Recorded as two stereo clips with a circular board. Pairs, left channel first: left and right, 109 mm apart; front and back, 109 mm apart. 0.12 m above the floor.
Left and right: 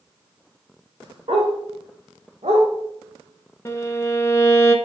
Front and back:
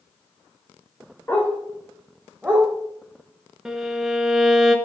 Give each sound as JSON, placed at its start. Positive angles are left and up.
{"t": 1.3, "sound": "a dog barking", "azimuth_deg": -70, "distance_m": 3.5}
{"t": 3.6, "sound": "a violin", "azimuth_deg": 100, "distance_m": 1.3}